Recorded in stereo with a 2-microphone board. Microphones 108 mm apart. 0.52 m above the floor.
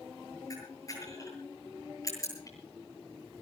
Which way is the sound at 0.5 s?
30° left (ahead or behind).